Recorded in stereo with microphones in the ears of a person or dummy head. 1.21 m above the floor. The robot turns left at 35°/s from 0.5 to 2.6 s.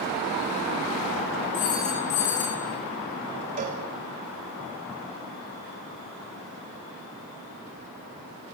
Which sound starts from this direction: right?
A cowbell, at 3.6 s.